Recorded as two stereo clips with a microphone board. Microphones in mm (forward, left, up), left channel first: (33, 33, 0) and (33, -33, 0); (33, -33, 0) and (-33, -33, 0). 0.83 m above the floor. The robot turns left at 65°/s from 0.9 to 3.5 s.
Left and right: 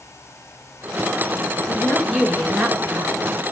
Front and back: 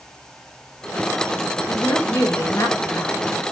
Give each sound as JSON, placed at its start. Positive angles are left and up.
{"t": 1.7, "sound": "a woman speaking", "azimuth_deg": 40, "distance_m": 0.7}